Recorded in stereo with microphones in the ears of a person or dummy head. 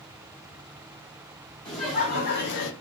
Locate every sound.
1.6 s laughter: 35° left (ahead or behind), 1.4 m; by 2.7 s 80° left, 0.8 m